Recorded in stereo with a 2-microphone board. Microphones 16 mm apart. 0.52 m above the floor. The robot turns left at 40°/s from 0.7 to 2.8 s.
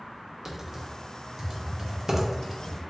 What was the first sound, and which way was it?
Typing on a keyboard, 30° right (ahead or behind).